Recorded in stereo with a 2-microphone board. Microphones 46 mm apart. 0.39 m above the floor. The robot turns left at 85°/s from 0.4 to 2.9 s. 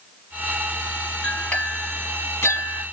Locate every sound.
1.2 s a clink: 5° left (ahead or behind), 1.7 m; by 2.8 s 40° left (ahead or behind), 1.7 m